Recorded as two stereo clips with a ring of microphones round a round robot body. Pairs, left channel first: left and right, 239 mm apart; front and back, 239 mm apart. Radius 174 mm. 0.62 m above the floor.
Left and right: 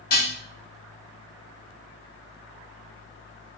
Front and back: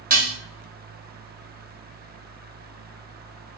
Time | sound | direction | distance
0.1 | dishes clattering | 135° left | 0.7 m